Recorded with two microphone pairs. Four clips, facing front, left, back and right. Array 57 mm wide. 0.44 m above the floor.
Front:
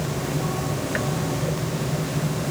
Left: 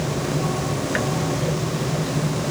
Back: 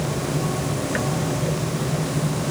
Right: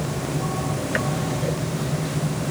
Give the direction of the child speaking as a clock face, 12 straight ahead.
I don't hear a child speaking.